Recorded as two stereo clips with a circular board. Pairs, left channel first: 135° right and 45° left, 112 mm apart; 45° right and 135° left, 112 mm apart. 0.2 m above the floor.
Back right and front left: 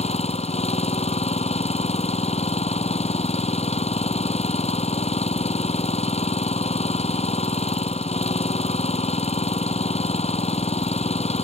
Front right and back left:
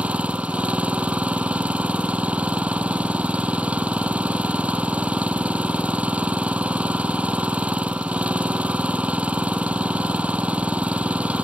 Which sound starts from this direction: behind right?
An engine running, at 0.0 s.